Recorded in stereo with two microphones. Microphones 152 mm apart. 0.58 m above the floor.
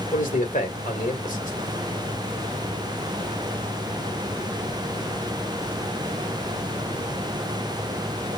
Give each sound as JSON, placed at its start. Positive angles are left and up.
{"t": 0.1, "sound": "a man speaking", "side_deg": 65, "distance_m": 1.8}